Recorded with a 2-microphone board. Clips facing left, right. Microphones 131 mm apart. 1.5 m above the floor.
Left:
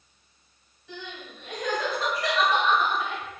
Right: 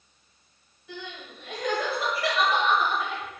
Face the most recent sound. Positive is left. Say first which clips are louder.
# even
turn(degrees=-10)  # may be behind; listen again after turning